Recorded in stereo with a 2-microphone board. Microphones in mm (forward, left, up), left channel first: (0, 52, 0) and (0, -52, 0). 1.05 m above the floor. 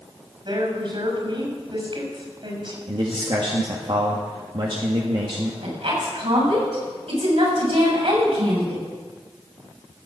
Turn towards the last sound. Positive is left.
turn(degrees=-70)  # may be behind; listen again after turning